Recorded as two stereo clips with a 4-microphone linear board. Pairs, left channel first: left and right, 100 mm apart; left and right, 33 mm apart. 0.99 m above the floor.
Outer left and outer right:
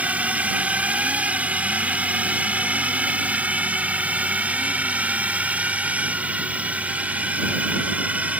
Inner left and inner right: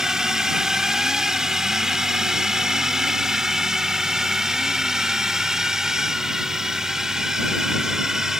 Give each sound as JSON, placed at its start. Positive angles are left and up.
{"t": 0.0, "sound": "a drone", "side_deg": -15}